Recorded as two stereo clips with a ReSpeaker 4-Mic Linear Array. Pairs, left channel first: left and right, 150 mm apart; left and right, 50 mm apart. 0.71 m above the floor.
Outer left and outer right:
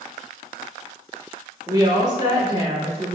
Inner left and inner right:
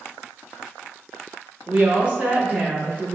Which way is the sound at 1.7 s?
25° right (ahead or behind).